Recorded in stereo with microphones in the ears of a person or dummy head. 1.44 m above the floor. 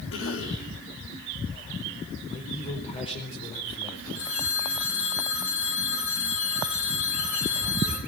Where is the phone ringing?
75° left (ahead or behind), 6 m.